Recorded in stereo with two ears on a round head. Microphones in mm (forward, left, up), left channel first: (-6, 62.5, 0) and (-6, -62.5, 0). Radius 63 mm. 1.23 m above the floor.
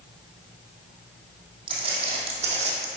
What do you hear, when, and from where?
1.7 s footsteps: 40° right (ahead or behind), 2.5 m; by 2.9 s 55° right (ahead or behind), 2.5 m